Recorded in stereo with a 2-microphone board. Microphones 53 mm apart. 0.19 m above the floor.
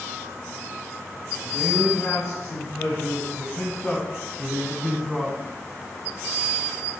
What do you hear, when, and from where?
1.4 s a man speaking: 60° left (ahead or behind), 3 m; by 5.4 s 10° right (ahead or behind), 1.7 m